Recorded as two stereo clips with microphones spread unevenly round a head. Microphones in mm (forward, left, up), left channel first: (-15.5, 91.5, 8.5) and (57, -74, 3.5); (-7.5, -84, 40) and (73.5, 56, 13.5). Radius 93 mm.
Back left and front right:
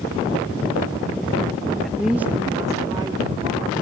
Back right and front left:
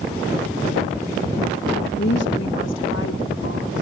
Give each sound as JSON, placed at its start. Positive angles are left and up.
{"t": 1.8, "sound": "a woman speaking", "azimuth_deg": -160, "distance_m": 1.5}